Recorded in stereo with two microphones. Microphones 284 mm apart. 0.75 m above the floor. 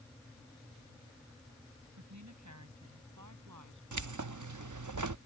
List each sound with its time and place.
2.0 s a woman speaking: 70° right (ahead or behind); by 3.8 s 75° right (ahead or behind)
3.9 s keys jangling: 80° right